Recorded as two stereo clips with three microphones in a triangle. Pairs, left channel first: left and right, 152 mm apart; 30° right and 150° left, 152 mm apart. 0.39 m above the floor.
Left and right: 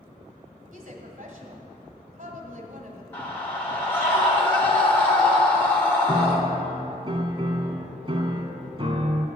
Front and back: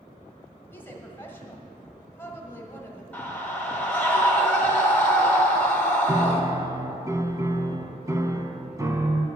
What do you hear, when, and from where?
0.7 s a woman speaking: 105° right, 1.7 m
3.1 s a scream: 35° left, 1.1 m
6.1 s a piano: 140° right, 0.7 m